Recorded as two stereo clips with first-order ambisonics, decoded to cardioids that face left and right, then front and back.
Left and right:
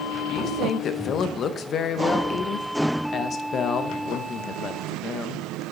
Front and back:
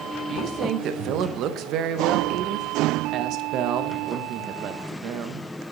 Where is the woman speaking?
145° left, 0.6 m.